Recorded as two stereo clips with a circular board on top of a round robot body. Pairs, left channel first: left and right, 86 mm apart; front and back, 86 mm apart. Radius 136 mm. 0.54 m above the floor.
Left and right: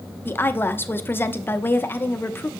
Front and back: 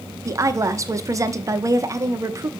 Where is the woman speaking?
145° left, 0.8 m.